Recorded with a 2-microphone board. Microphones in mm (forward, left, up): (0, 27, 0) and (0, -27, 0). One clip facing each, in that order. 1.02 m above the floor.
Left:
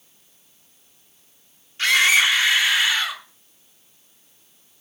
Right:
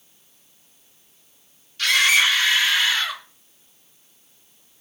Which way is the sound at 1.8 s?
30° left (ahead or behind).